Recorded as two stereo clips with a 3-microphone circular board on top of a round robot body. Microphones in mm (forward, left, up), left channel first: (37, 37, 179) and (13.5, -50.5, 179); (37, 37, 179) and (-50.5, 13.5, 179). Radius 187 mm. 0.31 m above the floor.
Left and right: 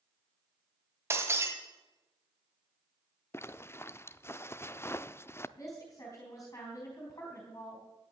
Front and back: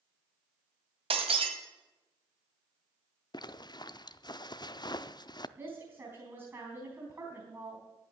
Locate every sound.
1.1 s breaking glass: 170° right, 1.9 m
3.3 s a zipper: 20° left, 0.7 m
5.6 s a woman speaking: 130° left, 3.5 m